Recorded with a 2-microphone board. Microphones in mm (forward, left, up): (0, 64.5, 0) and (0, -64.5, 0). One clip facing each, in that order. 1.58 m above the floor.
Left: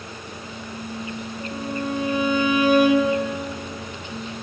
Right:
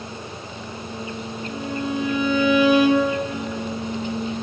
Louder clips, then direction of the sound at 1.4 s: Even; 45° left (ahead or behind).